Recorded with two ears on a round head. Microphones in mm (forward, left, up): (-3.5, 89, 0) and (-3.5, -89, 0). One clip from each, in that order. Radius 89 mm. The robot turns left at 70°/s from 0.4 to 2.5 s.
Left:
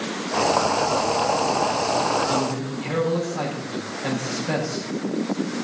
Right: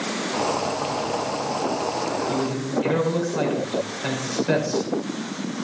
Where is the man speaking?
45° right (ahead or behind), 6 m; by 4.9 s 60° right (ahead or behind), 6 m.